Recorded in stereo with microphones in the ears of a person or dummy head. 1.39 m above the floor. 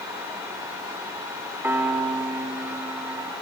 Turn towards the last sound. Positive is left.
turn(degrees=-10)  # may be behind; listen again after turning